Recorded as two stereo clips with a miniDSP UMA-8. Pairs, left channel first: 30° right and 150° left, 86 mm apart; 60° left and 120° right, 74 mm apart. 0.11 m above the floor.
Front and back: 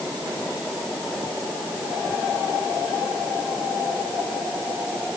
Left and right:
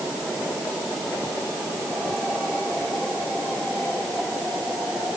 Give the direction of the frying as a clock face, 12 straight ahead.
I don't hear frying.